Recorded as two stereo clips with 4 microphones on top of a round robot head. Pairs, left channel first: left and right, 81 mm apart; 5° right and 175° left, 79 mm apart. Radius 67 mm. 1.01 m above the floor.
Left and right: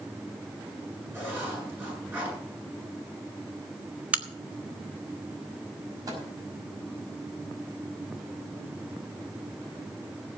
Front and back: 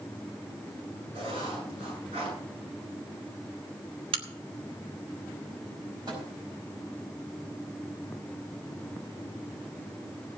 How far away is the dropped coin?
No dropped coin in this recording.